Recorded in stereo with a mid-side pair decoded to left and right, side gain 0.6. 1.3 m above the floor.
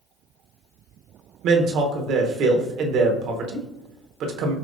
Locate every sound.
1.4 s a man speaking: 65° right, 0.9 m